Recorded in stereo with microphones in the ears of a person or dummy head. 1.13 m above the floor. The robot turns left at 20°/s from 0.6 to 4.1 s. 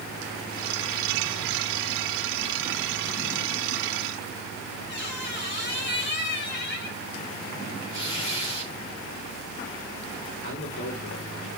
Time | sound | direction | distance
4.9 | a squeak | 70° left (ahead or behind) | 2.5 m
7.9 | tearing paper | 60° left (ahead or behind) | 4.5 m
10.4 | a man speaking | 70° left (ahead or behind) | 3 m